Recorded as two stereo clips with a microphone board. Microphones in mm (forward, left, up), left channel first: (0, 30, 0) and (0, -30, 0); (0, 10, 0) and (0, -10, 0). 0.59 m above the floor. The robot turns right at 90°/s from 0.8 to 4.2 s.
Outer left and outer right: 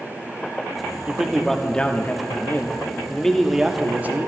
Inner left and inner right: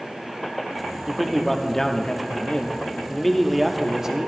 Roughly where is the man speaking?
Ahead right.